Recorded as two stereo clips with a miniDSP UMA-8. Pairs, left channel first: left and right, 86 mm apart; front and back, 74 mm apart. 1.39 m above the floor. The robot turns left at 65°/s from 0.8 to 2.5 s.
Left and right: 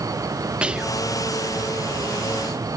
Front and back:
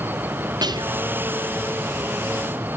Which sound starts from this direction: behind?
Whispering, at 0.6 s.